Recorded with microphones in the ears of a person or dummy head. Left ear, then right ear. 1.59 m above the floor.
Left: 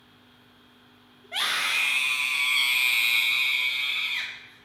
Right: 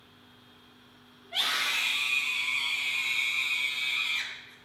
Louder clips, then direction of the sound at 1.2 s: Left 2 dB; 35° left (ahead or behind).